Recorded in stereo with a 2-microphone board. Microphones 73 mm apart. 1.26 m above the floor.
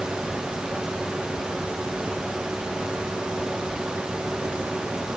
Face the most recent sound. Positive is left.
No sound to turn to.